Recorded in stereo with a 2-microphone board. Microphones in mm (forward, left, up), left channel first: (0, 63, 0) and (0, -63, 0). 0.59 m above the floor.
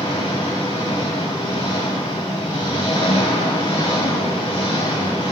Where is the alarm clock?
I don't hear an alarm clock.